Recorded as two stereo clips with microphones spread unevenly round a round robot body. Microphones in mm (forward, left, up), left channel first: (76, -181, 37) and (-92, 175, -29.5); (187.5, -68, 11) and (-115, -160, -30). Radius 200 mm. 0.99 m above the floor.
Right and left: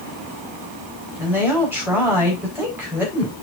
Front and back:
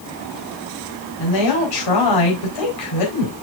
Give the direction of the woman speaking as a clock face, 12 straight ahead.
11 o'clock.